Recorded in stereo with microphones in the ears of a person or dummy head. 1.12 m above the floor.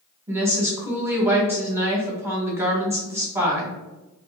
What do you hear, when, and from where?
0.3 s a woman speaking: 15° right (ahead or behind), 0.8 m